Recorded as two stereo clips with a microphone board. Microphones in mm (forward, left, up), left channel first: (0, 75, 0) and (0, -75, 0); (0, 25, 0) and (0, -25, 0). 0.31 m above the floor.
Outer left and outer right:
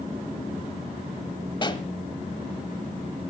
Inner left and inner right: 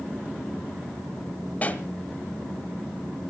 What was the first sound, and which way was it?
A pop, 30° left (ahead or behind).